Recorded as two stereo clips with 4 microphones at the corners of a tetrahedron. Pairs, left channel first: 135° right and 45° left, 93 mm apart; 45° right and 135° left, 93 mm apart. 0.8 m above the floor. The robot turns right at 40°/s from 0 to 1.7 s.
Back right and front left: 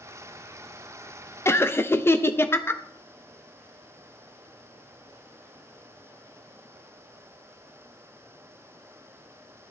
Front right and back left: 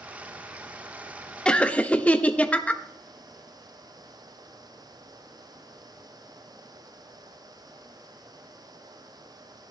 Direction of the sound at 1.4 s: 115° right.